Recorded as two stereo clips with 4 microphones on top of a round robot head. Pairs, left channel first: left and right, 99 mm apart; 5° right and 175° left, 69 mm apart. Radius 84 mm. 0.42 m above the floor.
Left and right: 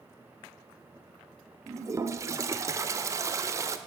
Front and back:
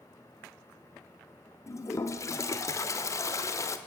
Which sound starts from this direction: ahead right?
A toilet flushing, at 1.7 s.